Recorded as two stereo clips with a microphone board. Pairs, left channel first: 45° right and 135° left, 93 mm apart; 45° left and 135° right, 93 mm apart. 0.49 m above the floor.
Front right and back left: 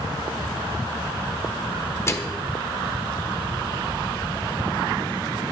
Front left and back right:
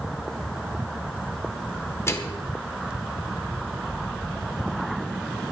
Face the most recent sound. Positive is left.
turn(degrees=0)